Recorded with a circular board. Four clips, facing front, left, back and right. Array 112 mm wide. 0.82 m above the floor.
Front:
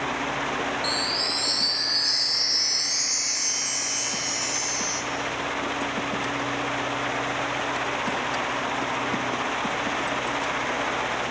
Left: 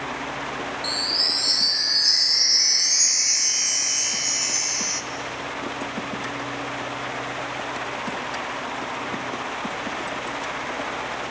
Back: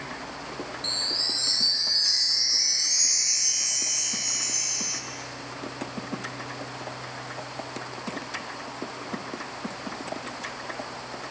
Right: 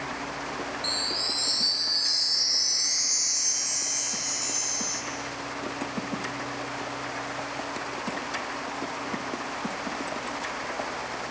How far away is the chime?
About 0.6 m.